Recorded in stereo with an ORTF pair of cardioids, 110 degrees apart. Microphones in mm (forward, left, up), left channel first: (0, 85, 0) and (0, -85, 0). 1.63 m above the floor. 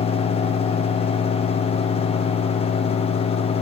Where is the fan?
35° left, 1.2 m.